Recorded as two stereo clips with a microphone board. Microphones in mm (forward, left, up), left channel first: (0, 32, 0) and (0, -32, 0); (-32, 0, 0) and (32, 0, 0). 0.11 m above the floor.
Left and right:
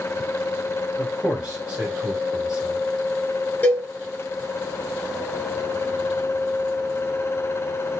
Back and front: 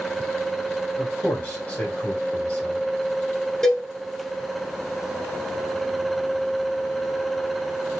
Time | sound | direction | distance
1.0 | a man speaking | 150° right | 1.8 m
3.6 | a cowbell | 110° left | 0.8 m